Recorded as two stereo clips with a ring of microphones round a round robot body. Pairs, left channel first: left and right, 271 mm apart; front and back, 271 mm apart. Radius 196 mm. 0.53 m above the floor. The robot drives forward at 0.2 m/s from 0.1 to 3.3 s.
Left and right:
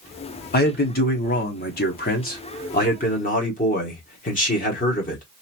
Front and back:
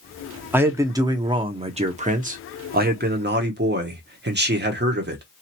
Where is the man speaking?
100° left, 0.9 m; by 5.2 s 140° left, 1.1 m.